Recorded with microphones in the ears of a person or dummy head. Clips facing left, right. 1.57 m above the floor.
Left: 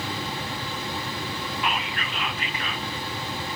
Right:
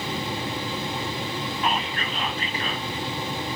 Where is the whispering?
35° right (ahead or behind), 0.8 m.